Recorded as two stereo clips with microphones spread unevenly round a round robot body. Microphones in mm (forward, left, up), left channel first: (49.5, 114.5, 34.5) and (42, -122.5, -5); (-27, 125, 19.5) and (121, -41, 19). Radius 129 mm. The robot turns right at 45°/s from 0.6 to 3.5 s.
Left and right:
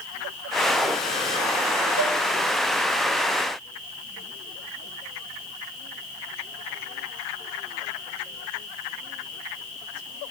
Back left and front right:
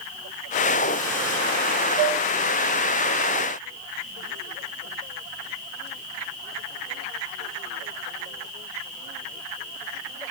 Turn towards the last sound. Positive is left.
turn(degrees=-30)